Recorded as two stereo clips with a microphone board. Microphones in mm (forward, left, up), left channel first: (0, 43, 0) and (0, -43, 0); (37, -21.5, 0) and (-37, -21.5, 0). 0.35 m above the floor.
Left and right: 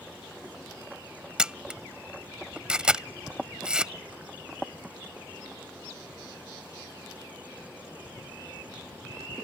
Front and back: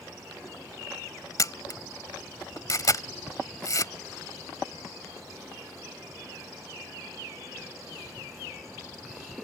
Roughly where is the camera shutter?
Ahead.